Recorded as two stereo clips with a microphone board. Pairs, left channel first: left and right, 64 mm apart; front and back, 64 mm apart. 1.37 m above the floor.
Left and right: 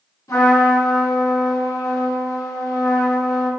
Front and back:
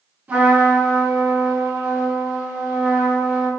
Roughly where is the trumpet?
Behind left.